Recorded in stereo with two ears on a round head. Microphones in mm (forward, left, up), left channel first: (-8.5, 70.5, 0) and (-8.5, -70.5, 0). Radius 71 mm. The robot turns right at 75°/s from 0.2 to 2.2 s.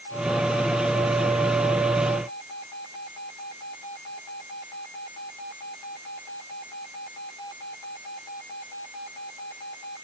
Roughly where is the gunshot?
No gunshot in this recording.